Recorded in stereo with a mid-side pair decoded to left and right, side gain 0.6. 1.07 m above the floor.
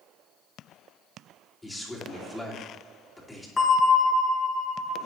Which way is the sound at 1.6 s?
10° left.